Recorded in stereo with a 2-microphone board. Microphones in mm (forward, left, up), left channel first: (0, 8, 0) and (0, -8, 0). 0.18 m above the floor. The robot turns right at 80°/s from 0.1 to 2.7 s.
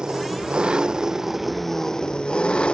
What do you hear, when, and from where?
0.0 s an engine running: 120° right; by 2.8 s 90° left